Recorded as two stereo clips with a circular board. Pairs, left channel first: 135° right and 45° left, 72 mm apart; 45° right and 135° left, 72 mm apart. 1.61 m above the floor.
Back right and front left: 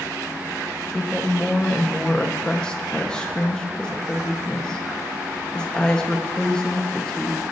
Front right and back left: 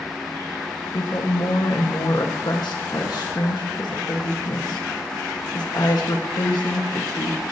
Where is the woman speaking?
55° right, 1.4 m.